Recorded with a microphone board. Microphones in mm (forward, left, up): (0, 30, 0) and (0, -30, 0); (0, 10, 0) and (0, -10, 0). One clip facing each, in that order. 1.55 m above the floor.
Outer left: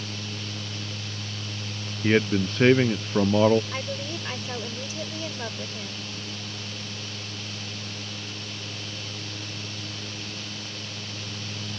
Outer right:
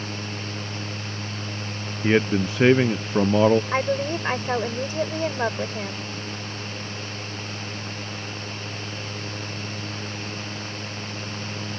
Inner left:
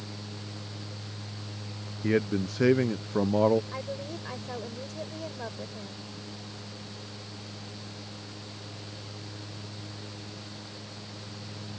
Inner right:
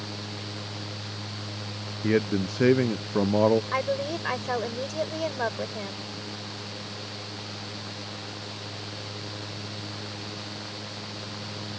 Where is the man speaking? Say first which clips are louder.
Outer right 2 dB, inner right 2 dB; 10° right (ahead or behind).